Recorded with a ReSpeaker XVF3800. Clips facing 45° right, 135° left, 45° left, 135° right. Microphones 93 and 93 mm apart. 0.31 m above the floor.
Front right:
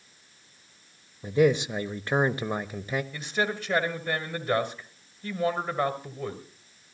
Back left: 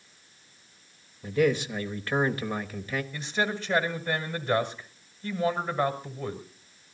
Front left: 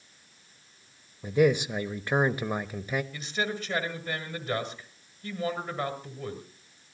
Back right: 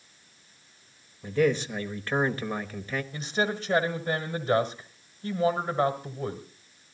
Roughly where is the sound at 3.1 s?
Behind right.